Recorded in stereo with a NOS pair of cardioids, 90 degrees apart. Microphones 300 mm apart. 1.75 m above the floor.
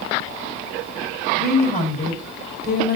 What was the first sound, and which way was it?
A woman speaking, 30° left.